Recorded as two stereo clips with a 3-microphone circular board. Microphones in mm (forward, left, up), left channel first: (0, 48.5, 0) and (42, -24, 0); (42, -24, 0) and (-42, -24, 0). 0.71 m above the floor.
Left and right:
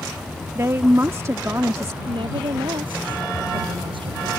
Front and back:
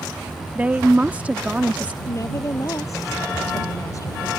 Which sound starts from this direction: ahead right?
A woman speaking, at 2.0 s.